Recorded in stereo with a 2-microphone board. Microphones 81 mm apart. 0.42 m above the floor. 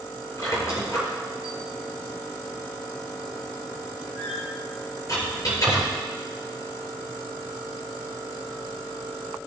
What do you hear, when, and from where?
0.4 s a squeak: 40° left (ahead or behind), 4.5 m